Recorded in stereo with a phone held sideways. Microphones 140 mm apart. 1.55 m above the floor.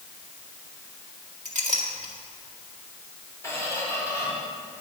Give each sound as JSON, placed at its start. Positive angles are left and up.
{"t": 1.4, "sound": "a clink", "side_deg": -60, "distance_m": 1.9}
{"t": 3.4, "sound": "a squeak", "side_deg": 20, "distance_m": 3.5}